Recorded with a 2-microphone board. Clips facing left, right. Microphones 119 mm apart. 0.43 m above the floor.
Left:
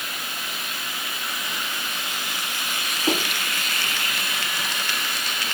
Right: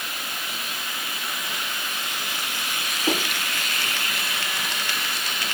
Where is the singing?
I don't hear singing.